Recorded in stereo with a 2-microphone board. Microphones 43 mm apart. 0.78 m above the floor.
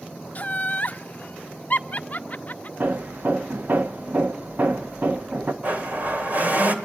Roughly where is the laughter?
Left.